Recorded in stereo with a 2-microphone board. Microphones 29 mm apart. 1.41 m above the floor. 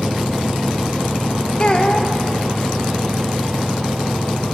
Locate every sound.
1.6 s a child speaking: 35° left (ahead or behind), 0.9 m